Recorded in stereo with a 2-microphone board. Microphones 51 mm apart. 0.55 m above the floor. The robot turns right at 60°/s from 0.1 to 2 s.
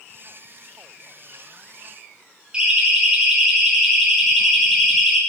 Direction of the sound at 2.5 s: 20° right (ahead or behind).